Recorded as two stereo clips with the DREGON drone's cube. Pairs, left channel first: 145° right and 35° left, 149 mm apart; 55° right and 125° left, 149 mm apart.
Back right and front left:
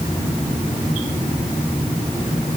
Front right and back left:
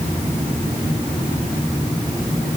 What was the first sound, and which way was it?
Only background noise.